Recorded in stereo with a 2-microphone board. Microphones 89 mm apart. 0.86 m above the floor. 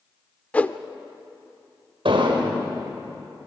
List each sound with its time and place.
0.5 s a whoosh: 15° left (ahead or behind), 0.7 m
2.0 s an explosion: 80° right, 3.5 m